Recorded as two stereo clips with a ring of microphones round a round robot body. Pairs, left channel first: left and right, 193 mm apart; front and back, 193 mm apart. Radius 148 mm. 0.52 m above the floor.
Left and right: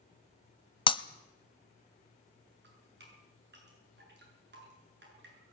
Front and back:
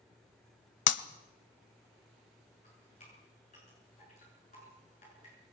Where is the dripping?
60° right, 7.5 m.